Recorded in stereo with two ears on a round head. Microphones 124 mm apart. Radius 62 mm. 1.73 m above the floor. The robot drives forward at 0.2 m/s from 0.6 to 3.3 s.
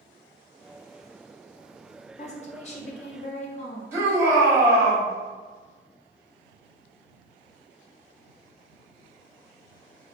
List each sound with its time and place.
2.2 s a woman speaking: 50° left (ahead or behind), 0.6 m
3.9 s a shout: 20° right (ahead or behind), 1.0 m